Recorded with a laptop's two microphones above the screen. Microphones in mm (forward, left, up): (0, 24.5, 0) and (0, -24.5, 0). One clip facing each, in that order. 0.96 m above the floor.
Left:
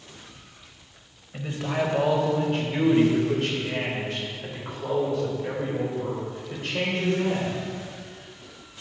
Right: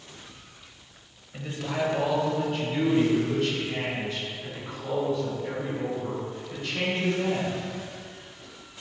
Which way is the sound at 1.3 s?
20° left (ahead or behind).